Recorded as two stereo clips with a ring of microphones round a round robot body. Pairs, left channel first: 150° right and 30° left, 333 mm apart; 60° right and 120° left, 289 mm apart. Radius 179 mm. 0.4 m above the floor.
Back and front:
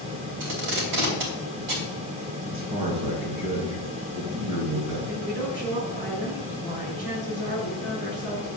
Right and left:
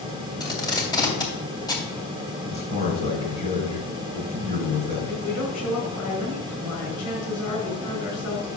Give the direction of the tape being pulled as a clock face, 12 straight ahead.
11 o'clock.